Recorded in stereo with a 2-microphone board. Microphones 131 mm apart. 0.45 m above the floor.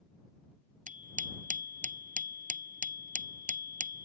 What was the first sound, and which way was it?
A bicycle bell, 80° right.